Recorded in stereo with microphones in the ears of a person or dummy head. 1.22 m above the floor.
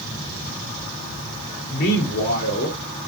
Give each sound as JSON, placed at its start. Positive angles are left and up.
{"t": 1.7, "sound": "a man speaking", "side_deg": 60, "distance_m": 3.0}